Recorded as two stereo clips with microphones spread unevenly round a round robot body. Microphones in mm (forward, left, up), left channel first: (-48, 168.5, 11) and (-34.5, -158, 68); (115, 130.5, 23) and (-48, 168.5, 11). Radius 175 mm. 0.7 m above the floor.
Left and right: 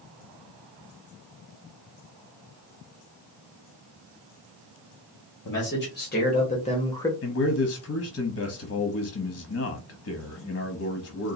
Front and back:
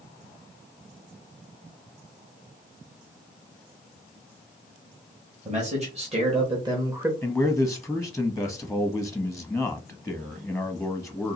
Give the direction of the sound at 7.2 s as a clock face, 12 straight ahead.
9 o'clock.